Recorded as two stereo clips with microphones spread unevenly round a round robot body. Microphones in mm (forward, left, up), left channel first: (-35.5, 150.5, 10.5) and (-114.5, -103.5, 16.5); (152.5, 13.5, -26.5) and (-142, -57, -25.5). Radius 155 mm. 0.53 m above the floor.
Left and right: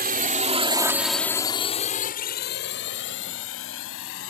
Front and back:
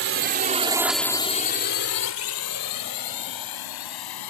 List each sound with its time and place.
0.0 s a drone: 145° right; by 4.3 s 25° left